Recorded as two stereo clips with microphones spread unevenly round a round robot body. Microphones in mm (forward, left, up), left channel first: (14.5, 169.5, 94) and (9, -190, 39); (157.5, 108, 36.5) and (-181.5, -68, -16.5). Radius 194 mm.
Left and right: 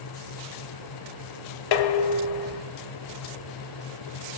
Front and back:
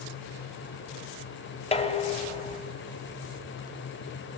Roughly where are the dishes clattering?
Left.